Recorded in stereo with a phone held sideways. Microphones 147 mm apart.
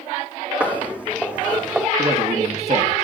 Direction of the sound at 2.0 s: 50° right (ahead or behind).